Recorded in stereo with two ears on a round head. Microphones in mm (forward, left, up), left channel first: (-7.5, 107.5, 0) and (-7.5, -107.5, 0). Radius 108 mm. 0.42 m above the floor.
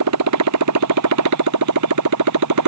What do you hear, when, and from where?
0.0 s a motorcycle: 75° right (ahead or behind); by 2.7 s 85° right